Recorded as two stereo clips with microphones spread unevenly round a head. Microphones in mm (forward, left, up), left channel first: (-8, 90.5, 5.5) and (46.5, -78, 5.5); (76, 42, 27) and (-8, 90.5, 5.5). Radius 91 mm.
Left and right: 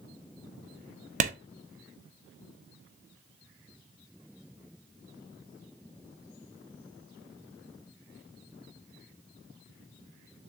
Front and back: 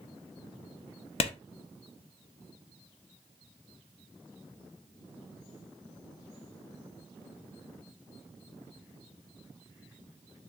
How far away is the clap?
About 0.6 m.